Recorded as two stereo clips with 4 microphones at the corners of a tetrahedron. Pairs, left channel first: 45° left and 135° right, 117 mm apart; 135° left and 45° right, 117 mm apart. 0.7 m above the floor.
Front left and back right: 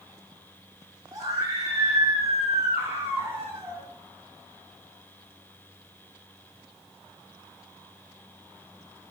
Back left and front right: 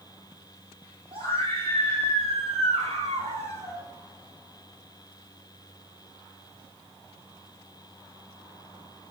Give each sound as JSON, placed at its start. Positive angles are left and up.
{"t": 1.1, "sound": "a scream", "azimuth_deg": -75, "distance_m": 5.0}